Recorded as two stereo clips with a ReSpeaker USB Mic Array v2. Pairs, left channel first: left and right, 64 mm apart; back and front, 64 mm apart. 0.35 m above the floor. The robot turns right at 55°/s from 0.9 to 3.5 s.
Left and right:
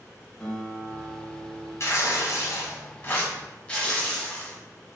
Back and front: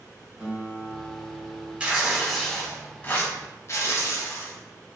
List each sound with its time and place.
0.4 s a guitar: 30° left, 1.3 m; by 1.7 s 75° left, 1.3 m
1.8 s tearing paper: 70° left, 0.9 m; by 4.6 s 160° left, 0.9 m